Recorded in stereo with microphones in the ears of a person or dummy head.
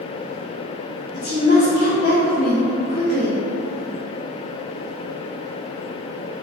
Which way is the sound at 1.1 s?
55° left (ahead or behind).